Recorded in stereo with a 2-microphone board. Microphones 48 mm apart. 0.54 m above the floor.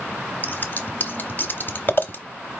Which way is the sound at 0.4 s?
45° left (ahead or behind).